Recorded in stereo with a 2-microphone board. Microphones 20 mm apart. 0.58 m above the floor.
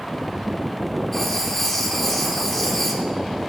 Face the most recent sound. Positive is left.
turn(degrees=10)  # may be behind; listen again after turning